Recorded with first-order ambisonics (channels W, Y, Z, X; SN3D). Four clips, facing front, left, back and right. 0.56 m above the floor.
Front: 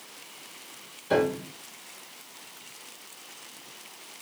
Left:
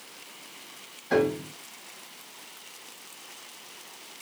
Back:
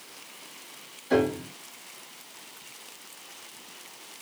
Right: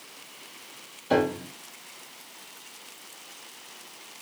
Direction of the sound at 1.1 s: 65° right.